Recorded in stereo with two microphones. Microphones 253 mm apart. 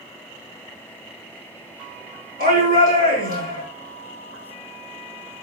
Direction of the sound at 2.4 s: 30° right (ahead or behind).